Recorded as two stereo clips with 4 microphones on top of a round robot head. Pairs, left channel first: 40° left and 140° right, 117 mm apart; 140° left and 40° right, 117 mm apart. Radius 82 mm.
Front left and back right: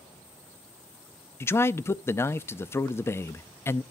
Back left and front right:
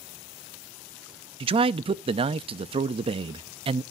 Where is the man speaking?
20° right, 0.6 m.